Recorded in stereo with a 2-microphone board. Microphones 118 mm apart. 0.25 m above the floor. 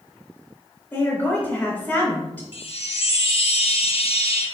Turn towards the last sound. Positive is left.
turn(degrees=55)  # may be behind; listen again after turning